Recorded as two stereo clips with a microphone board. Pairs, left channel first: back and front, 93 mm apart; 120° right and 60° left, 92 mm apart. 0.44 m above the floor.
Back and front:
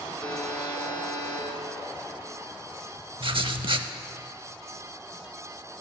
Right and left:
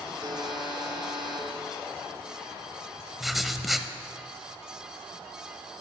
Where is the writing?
30° right, 0.6 m.